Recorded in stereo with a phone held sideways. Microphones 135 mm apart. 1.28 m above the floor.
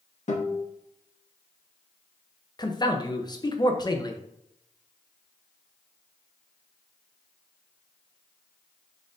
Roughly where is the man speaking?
Left.